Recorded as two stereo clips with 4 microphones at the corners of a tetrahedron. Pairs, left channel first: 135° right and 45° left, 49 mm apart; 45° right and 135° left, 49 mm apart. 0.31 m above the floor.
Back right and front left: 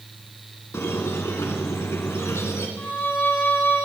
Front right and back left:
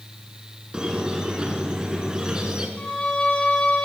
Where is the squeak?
150° right, 1.7 m.